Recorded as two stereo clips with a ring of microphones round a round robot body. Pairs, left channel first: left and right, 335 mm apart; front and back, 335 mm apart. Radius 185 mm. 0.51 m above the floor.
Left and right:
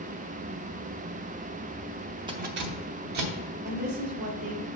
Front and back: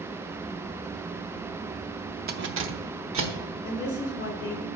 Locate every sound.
2.3 s keys jangling: 155° right, 0.6 m; by 3.3 s 130° right, 1.4 m
3.6 s a woman speaking: 40° right, 1.5 m